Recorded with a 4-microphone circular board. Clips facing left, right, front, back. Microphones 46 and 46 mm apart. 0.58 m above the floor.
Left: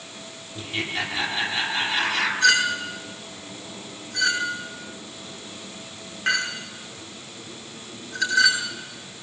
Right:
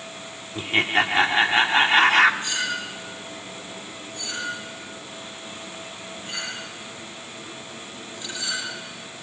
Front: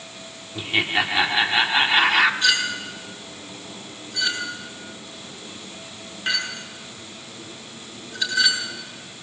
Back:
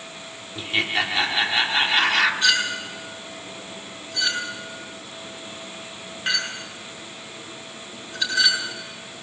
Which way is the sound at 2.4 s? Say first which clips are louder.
Left 8 dB, even; 90° left.